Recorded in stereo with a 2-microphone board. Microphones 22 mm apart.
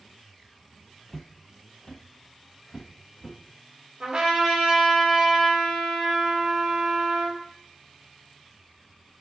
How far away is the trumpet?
About 1.8 m.